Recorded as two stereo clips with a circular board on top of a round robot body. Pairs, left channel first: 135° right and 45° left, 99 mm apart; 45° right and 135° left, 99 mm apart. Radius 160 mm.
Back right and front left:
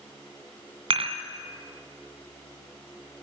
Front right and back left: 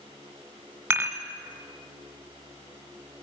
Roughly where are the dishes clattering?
Left.